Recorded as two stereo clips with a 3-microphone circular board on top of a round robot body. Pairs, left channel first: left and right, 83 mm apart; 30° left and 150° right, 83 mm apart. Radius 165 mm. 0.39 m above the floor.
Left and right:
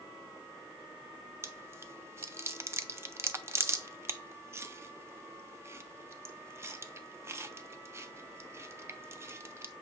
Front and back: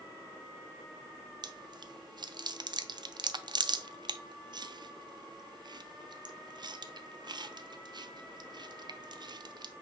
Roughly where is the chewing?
Behind right.